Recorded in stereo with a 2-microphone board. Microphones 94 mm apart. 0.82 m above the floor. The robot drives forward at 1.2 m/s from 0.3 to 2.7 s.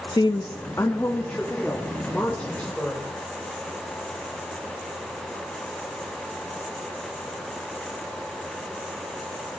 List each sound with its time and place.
0.1 s a woman speaking: 50° left (ahead or behind), 0.6 m; by 3.0 s 10° left (ahead or behind), 3 m